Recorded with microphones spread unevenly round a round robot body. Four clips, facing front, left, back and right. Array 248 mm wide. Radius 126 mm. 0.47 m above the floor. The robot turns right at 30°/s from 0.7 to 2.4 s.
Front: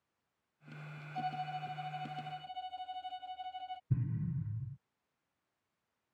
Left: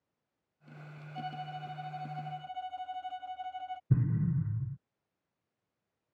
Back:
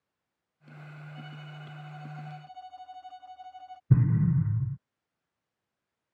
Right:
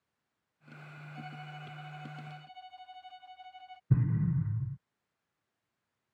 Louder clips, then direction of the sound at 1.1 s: Left 7 dB, front 12 dB; 45° left.